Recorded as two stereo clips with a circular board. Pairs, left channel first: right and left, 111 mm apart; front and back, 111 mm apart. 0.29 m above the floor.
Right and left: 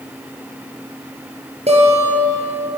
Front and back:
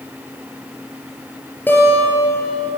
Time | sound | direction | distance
1.7 | a guitar | 75° left | 5 m